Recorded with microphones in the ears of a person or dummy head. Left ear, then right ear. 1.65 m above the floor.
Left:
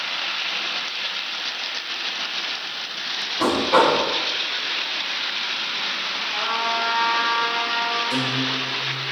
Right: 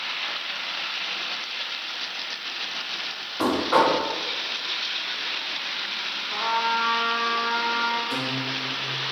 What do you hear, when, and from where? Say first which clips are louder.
3.4 s knocking: left 3 dB; 35° right (ahead or behind), 1.1 m
6.3 s a trumpet: right 1 dB; 60° right (ahead or behind), 0.7 m
8.1 s a guitar: left 4 dB; 5° right (ahead or behind), 1.0 m